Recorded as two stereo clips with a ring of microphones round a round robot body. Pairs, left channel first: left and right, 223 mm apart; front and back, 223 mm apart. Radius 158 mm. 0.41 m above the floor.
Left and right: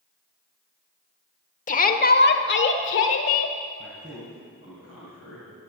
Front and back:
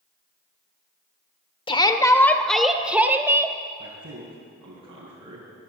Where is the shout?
55° left, 1.2 m; by 3.6 s 105° left, 1.8 m.